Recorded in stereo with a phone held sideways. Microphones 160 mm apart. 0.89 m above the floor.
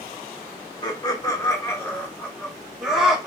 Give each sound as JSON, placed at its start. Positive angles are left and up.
{"t": 0.8, "sound": "laughter", "side_deg": 25, "distance_m": 0.9}